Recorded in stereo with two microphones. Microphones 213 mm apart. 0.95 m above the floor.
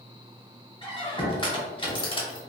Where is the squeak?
25° left (ahead or behind), 0.7 m.